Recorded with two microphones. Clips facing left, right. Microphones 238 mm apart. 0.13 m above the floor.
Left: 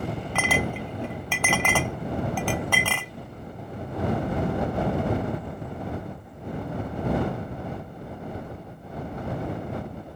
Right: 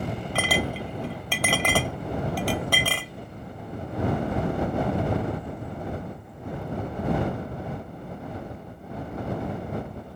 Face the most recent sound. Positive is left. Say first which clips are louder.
# even
turn(degrees=-40)  # may be behind; listen again after turning